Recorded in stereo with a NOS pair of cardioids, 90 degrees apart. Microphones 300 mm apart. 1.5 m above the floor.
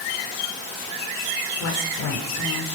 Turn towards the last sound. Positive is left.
turn(degrees=65)